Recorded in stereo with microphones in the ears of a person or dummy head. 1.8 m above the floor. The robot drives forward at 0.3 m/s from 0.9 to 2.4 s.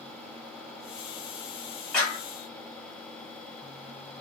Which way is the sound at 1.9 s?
Centre (ahead or behind).